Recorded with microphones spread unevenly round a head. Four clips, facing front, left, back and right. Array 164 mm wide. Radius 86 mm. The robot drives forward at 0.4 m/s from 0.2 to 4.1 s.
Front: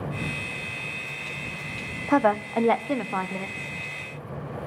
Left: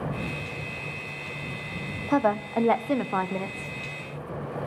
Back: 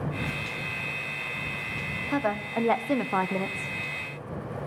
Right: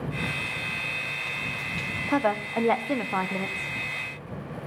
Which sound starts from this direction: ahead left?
A woman speaking, at 2.1 s.